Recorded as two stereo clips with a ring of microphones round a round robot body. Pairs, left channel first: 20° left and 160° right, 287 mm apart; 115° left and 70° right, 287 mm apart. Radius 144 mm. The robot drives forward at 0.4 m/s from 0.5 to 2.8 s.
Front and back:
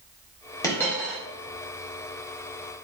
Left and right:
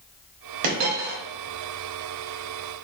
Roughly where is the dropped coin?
Ahead right.